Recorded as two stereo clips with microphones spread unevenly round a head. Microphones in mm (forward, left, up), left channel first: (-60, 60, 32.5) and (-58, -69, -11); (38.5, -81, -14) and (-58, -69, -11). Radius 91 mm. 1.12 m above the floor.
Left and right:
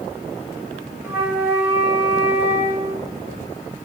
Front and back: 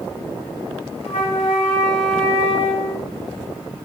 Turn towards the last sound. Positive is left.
turn(degrees=0)